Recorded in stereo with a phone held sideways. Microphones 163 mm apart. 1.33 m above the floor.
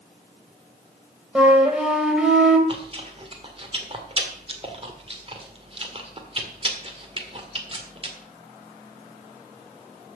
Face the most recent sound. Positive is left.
turn(degrees=-35)  # may be behind; listen again after turning